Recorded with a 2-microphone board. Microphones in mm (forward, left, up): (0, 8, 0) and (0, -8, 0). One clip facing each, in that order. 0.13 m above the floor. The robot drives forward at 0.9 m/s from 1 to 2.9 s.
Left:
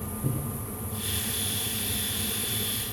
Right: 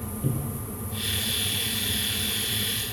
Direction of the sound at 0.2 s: 45° right (ahead or behind).